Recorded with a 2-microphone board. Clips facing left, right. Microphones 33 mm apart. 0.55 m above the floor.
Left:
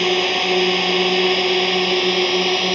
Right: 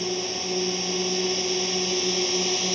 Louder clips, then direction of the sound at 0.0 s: Left 12 dB; 65° left (ahead or behind).